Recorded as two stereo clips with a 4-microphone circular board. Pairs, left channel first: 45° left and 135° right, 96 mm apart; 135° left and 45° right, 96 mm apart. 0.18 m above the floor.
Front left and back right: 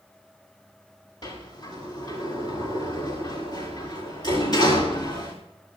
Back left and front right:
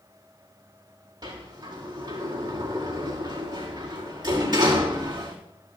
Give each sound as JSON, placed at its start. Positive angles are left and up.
{"t": 1.2, "sound": "a sliding door", "azimuth_deg": 0, "distance_m": 7.0}